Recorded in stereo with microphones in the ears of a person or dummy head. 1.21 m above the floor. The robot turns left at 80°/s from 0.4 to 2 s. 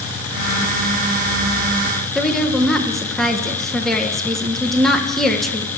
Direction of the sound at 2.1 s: Centre (ahead or behind).